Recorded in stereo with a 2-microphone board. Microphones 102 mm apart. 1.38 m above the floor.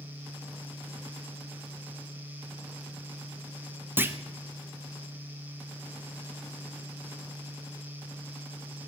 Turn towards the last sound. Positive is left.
turn(degrees=-20)  # may be behind; listen again after turning